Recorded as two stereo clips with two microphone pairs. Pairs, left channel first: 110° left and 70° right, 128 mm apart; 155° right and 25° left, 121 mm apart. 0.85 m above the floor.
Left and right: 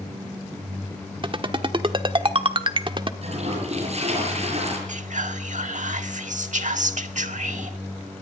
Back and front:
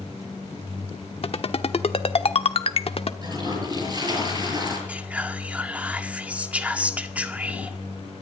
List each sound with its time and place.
1.2 s a ringtone: 115° right, 1.0 m
3.2 s a toilet flushing: 30° right, 7 m
4.9 s whispering: 55° right, 1.8 m